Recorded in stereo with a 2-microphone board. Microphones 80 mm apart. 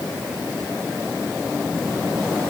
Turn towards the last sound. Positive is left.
No sound to turn to.